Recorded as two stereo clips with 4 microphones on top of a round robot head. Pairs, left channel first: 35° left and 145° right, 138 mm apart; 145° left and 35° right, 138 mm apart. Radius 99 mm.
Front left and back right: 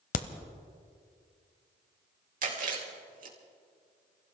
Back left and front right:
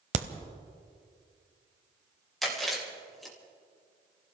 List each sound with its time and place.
0.1 s a crack: 5° left, 0.8 m
2.4 s chewing: 125° right, 3.5 m